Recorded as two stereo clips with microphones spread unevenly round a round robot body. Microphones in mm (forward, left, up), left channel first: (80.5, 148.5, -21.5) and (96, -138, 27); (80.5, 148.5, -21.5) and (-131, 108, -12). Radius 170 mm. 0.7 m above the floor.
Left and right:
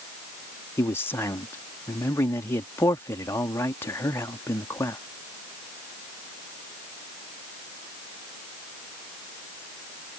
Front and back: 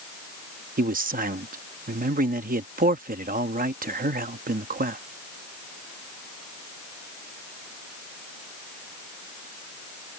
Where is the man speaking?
160° left.